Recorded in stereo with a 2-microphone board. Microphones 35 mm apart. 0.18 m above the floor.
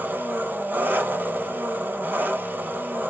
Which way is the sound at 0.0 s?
75° right (ahead or behind).